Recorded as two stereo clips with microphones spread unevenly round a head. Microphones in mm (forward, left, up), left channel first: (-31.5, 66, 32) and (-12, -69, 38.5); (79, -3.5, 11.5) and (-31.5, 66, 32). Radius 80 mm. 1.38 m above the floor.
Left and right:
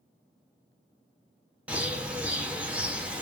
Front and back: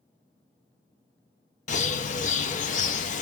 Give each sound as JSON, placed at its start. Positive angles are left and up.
{"t": 1.7, "sound": "a bird", "azimuth_deg": 0, "distance_m": 0.6}